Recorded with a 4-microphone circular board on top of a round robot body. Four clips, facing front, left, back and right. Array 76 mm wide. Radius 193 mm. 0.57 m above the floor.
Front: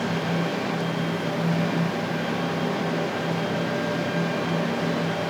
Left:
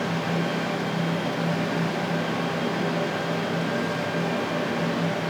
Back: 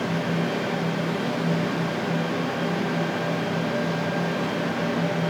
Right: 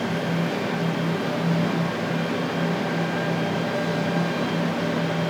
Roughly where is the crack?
I don't hear a crack.